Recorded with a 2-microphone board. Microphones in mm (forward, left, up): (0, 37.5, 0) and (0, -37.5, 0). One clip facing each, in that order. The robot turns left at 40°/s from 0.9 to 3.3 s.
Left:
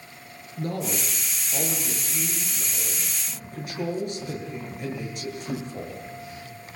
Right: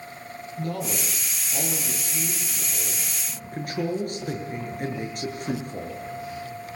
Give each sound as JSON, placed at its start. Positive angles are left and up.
{"t": 0.6, "sound": "a man speaking", "azimuth_deg": 45, "distance_m": 7.5}